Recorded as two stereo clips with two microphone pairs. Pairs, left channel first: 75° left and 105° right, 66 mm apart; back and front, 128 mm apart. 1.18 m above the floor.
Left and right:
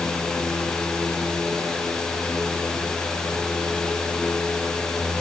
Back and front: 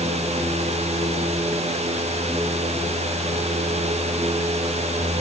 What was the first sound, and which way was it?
Only background noise.